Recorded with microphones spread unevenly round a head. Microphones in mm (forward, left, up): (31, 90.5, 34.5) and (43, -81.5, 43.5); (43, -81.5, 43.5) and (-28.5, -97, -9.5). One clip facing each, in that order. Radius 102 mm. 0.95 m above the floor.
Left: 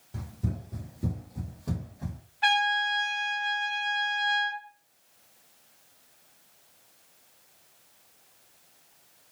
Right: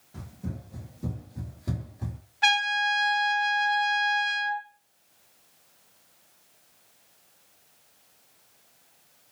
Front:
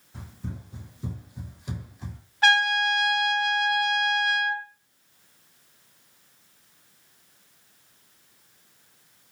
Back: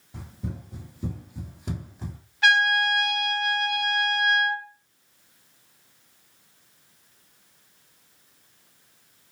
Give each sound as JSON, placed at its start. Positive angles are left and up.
{"t": 0.1, "sound": "running footsteps", "azimuth_deg": 130, "distance_m": 1.3}
{"t": 2.4, "sound": "a trumpet", "azimuth_deg": -50, "distance_m": 0.7}